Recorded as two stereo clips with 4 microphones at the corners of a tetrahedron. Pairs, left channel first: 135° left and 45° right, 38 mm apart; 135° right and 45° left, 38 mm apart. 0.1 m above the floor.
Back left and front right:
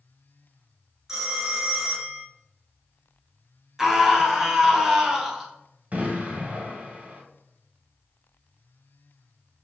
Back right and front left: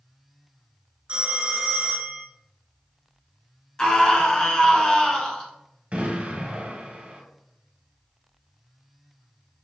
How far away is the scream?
About 1.1 m.